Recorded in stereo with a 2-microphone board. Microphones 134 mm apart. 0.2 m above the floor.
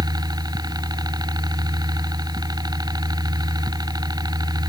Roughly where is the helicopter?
Right.